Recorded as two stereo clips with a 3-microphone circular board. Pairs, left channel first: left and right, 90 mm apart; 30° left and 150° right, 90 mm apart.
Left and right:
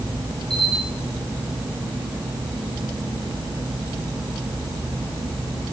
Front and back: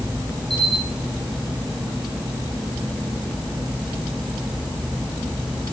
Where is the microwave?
I don't hear a microwave.